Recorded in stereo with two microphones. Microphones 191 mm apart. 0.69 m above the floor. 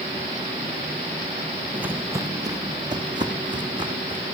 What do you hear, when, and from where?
1.7 s footsteps: 5° right (ahead or behind), 0.8 m; by 4.2 s 25° right (ahead or behind), 3 m